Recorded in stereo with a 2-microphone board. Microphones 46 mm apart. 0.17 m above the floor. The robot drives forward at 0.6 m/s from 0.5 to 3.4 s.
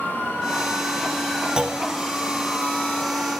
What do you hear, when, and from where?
1.6 s a clunk: 20° right (ahead or behind), 1.0 m; by 1.8 s 15° right (ahead or behind), 1.1 m